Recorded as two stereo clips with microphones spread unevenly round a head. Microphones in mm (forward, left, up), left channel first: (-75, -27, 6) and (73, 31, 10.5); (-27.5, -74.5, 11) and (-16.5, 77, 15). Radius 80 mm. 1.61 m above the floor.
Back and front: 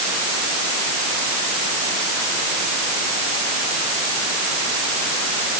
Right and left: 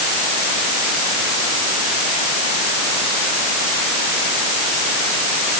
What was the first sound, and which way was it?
Only background noise.